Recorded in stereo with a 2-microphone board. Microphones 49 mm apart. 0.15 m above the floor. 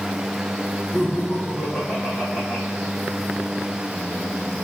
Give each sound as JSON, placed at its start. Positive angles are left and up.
{"t": 0.9, "sound": "laughter", "side_deg": 45, "distance_m": 3.5}